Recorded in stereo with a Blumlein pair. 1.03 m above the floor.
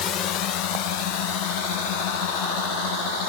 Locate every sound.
0.0 s a drone: 30° left; by 3.3 s 50° left